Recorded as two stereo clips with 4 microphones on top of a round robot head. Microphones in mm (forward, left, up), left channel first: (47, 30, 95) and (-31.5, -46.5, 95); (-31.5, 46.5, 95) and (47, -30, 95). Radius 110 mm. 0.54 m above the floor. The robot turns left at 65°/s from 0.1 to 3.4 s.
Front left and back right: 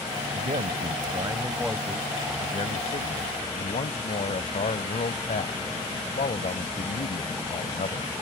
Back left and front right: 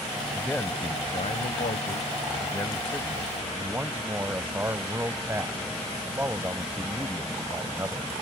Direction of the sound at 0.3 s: 135° right.